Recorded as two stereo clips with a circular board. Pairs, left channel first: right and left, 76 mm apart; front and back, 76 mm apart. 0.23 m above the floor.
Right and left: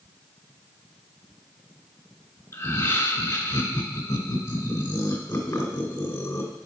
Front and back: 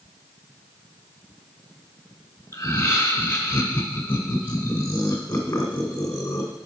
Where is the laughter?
50° right, 1.9 m.